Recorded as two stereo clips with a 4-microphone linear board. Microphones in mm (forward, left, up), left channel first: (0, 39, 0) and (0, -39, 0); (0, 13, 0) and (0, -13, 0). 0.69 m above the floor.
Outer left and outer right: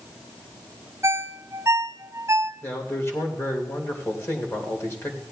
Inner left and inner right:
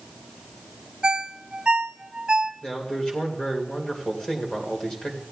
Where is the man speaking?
35° left (ahead or behind), 2.5 m.